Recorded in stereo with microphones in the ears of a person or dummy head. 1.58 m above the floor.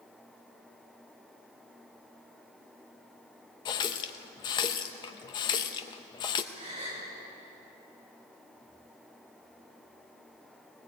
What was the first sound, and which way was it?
A running tap, 25° left (ahead or behind).